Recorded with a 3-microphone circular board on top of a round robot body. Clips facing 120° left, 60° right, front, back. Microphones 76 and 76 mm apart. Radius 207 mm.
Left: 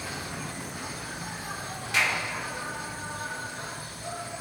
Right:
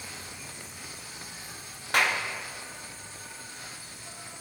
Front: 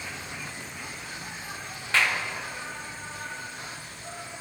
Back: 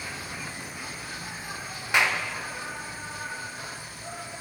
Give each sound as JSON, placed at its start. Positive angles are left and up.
{"t": 0.0, "sound": "an insect", "azimuth_deg": 100, "distance_m": 0.8}
{"t": 1.9, "sound": "a clap", "azimuth_deg": -105, "distance_m": 2.5}